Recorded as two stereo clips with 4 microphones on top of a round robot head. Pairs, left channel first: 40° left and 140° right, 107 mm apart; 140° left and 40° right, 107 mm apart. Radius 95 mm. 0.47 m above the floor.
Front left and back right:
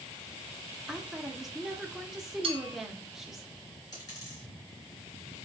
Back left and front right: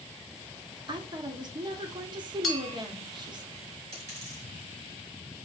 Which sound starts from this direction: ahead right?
A woman speaking, at 0.9 s.